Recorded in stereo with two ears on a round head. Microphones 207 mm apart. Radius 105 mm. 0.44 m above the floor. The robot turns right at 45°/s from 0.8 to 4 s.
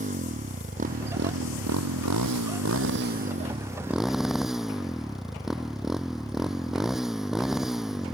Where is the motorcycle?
145° right; by 8.2 s straight ahead.